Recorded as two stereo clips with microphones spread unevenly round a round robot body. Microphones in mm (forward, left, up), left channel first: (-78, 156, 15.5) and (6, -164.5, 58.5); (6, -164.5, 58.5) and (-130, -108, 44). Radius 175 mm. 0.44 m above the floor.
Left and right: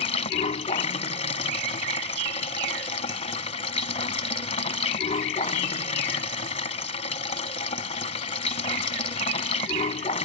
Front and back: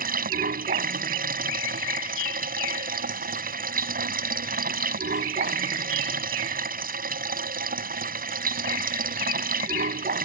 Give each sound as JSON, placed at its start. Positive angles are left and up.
{"t": 0.0, "sound": "running water", "azimuth_deg": 175}